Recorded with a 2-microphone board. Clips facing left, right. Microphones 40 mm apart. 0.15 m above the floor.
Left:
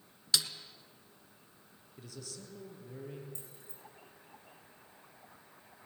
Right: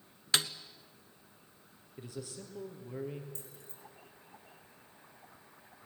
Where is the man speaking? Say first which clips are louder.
Right 4 dB; 25° right (ahead or behind), 3.5 m.